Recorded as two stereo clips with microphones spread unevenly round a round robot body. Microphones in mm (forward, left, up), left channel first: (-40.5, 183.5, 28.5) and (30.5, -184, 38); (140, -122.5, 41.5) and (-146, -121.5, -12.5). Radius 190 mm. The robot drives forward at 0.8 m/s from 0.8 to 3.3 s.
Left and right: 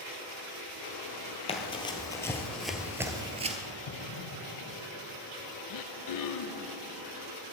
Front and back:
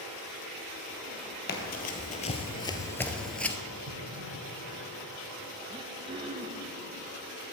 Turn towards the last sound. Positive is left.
turn(degrees=115)